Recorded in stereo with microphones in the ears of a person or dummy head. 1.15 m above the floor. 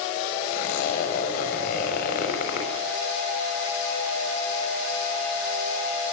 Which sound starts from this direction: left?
A zipper, at 0.5 s.